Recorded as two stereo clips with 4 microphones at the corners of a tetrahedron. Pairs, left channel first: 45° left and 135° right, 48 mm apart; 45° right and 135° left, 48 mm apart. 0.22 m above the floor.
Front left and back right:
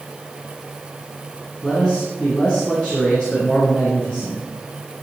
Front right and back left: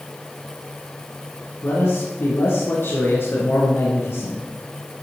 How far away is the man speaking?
About 3 m.